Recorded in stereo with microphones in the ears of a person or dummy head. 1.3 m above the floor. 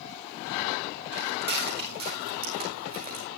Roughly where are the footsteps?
Right.